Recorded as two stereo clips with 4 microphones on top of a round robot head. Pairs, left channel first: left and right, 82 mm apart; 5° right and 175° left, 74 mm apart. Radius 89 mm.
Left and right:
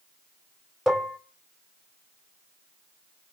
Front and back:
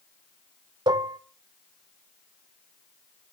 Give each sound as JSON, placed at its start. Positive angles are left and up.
{"t": 0.9, "sound": "dishes clattering", "azimuth_deg": -175, "distance_m": 1.6}